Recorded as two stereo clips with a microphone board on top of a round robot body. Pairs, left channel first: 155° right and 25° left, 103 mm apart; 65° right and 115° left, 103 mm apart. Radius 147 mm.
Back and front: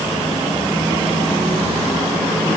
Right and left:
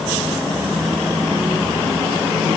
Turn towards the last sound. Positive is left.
No sound to turn to.